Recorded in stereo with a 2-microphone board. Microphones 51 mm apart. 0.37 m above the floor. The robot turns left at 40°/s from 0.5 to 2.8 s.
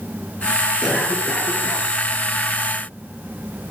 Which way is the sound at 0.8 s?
170° right.